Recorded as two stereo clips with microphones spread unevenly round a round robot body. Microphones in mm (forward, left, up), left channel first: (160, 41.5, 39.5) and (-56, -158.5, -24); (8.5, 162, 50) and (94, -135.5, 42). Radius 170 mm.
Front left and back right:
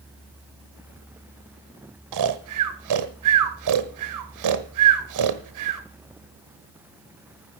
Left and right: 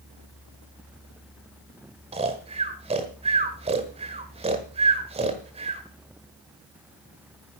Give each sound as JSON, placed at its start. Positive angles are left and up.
{"t": 2.1, "sound": "snoring", "azimuth_deg": -145, "distance_m": 1.2}